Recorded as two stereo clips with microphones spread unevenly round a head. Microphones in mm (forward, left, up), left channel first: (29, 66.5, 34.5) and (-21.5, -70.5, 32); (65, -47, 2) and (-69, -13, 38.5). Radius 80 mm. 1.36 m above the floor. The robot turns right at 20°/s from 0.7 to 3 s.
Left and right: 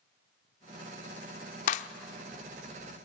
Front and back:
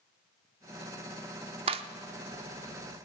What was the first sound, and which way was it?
A clap, 110° left.